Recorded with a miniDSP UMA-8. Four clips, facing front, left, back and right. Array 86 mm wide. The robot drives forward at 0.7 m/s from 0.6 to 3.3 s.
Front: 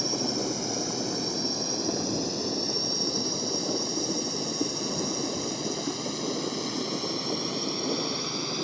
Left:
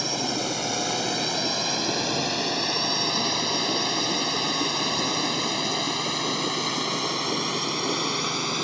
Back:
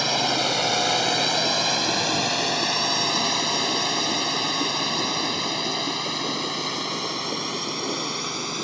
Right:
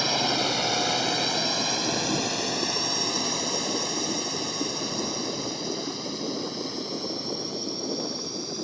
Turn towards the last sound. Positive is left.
turn(degrees=115)